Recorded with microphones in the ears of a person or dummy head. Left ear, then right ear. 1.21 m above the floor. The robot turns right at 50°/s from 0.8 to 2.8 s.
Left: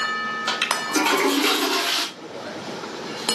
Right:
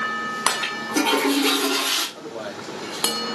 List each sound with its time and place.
0.5 s a toilet flushing: 105° left, 2.5 m; by 2.0 s 170° left, 2.5 m
2.1 s a man speaking: 145° right, 2.5 m; by 3.3 s 115° right, 2.5 m